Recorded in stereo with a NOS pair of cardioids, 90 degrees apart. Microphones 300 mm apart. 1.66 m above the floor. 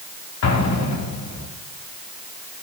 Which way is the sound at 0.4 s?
55° left.